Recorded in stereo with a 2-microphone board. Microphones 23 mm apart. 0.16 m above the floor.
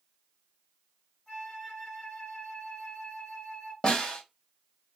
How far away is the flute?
About 3 m.